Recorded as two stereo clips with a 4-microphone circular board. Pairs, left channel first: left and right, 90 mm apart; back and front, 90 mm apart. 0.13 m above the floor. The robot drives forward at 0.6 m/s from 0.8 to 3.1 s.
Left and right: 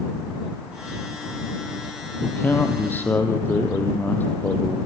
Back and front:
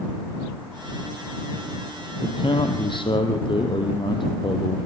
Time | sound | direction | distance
2.2 | a man speaking | 155° left | 3.5 m